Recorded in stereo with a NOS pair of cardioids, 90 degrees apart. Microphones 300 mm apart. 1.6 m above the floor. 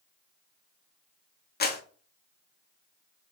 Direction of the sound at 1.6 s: 30° left.